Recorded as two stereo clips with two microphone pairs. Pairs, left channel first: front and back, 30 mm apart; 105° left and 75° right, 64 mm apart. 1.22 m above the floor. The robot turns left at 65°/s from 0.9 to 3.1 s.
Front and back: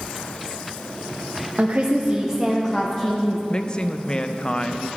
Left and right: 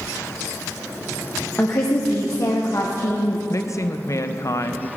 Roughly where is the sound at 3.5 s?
Ahead left.